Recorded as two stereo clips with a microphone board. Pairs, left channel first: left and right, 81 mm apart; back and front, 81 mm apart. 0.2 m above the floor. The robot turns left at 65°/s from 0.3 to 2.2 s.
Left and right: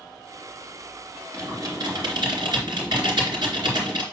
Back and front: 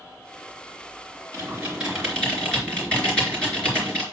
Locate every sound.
1.3 s typing on a keyboard: 50° right, 3 m; by 4.0 s 105° right, 3 m